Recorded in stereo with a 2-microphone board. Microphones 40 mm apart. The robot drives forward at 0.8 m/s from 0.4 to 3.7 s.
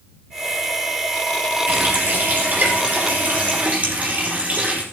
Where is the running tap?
50° right (ahead or behind), 4 m; by 4.8 s 40° right (ahead or behind), 5 m.